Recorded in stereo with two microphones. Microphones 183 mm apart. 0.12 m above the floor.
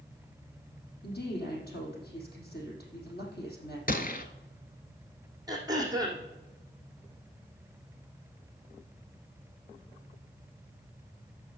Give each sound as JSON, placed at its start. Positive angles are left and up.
{"t": 1.0, "sound": "a woman speaking", "side_deg": 55, "distance_m": 4.0}
{"t": 3.9, "sound": "a gunshot", "side_deg": 50, "distance_m": 1.0}
{"t": 5.5, "sound": "throat clearing", "side_deg": -20, "distance_m": 2.0}